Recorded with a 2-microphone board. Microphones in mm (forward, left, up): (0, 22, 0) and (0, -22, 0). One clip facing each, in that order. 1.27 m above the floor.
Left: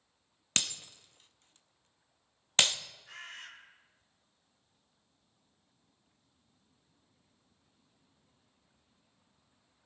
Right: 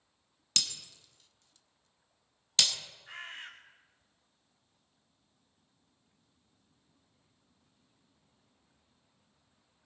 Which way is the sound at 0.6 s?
40° left (ahead or behind).